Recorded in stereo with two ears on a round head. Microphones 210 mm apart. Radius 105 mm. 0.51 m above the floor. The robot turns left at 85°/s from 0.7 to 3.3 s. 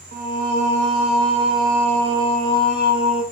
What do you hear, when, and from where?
0.1 s singing: 40° right, 1.1 m; by 3.2 s 105° left, 1.1 m